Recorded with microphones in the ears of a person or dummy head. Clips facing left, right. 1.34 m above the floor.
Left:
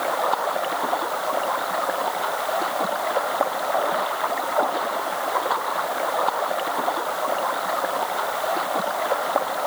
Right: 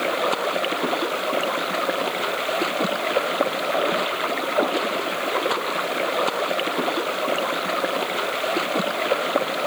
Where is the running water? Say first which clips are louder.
Right 1 dB; 40° right (ahead or behind).